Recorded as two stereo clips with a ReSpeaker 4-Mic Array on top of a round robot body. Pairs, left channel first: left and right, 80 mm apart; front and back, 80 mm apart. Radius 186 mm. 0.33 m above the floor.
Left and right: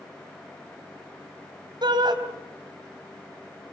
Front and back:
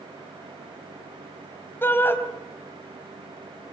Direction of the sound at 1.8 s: 65° right.